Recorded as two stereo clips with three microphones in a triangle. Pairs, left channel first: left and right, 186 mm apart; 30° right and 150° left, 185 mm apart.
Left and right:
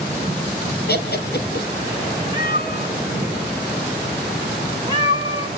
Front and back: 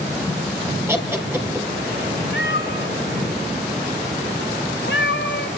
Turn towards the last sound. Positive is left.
turn(degrees=-25)